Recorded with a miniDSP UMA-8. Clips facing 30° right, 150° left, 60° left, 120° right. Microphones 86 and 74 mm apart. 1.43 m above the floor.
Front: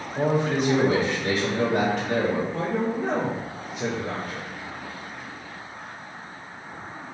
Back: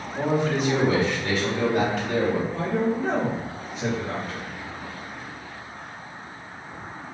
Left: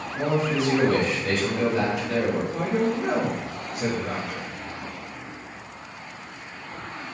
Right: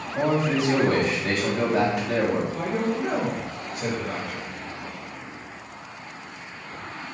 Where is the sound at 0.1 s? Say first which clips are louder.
Front 1 dB, right 1 dB; 80° right, 1.3 m.